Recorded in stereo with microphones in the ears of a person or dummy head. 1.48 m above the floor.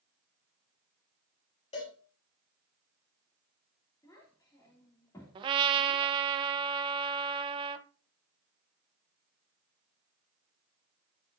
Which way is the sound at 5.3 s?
30° right (ahead or behind).